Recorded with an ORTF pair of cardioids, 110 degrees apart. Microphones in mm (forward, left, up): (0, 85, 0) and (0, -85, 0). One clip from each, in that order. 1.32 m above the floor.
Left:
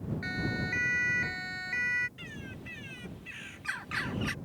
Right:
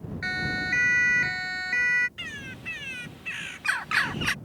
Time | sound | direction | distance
0.2 | a siren | 45° right | ?
2.2 | a bird | 55° right | ?